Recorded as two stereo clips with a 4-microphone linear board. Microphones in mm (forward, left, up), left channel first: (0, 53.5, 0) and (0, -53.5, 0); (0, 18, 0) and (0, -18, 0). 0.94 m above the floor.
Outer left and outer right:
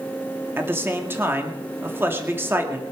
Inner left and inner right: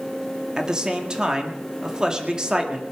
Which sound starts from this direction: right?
A man speaking, at 0.6 s.